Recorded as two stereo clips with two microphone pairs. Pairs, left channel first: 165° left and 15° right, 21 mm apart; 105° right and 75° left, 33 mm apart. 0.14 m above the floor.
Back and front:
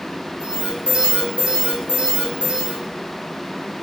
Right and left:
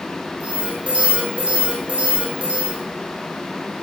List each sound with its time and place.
0.4 s an alarm: 10° left, 6.5 m